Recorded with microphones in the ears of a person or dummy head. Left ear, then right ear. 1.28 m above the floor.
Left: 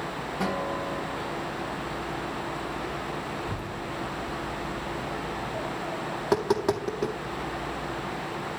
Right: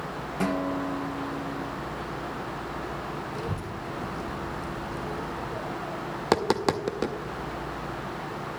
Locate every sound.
0.4 s a guitar: 30° right (ahead or behind), 1.8 m
3.4 s a child speaking: 65° right (ahead or behind), 1.1 m
6.2 s tapping: 25° right (ahead or behind), 0.7 m